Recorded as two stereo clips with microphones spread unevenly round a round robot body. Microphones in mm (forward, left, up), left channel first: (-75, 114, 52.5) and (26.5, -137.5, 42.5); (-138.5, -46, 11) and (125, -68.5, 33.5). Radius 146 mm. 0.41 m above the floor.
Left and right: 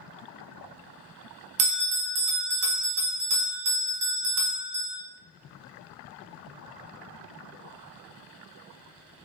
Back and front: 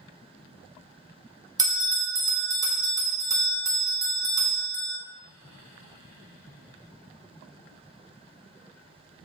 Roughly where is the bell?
Right.